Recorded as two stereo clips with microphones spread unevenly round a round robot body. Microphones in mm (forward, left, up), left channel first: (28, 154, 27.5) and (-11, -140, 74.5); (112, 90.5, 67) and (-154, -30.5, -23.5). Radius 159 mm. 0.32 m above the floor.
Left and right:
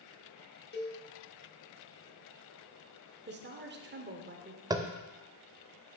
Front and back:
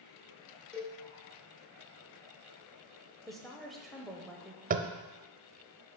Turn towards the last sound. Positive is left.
turn(degrees=180)